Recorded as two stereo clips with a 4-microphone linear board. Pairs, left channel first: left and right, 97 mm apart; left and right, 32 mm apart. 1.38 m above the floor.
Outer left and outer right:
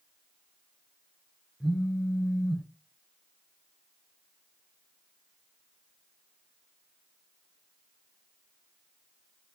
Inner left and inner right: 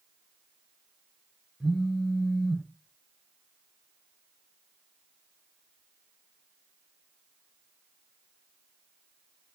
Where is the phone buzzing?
Centre (ahead or behind), 0.6 m.